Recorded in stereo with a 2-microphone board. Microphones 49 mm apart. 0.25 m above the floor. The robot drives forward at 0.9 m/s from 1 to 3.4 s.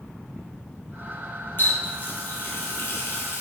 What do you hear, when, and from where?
1.6 s a running tap: 40° left (ahead or behind), 4.5 m; by 3.4 s 60° left (ahead or behind), 3.5 m